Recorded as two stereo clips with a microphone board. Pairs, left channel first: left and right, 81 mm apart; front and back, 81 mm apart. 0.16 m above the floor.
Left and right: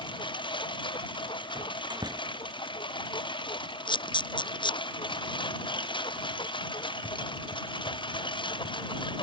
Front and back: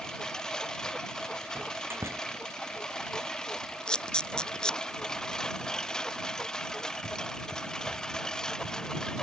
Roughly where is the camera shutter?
Left.